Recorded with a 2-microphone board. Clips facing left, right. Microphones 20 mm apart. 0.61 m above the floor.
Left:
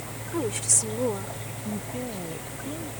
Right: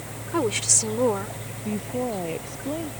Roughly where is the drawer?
I don't hear a drawer.